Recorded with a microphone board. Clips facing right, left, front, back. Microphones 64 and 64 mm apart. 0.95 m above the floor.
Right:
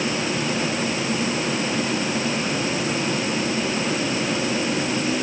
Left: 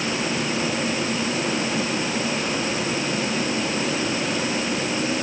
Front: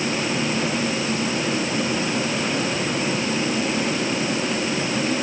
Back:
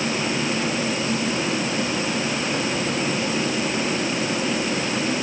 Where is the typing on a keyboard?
No typing on a keyboard in this recording.